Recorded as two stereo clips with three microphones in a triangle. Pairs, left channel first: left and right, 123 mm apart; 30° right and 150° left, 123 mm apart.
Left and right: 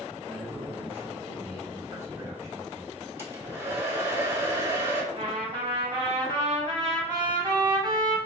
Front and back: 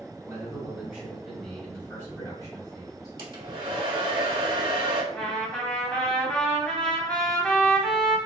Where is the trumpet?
105° right, 1.0 m.